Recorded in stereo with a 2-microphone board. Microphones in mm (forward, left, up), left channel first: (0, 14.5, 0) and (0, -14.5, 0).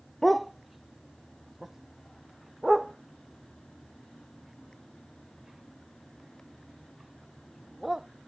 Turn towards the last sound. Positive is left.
turn(degrees=-10)  # may be behind; listen again after turning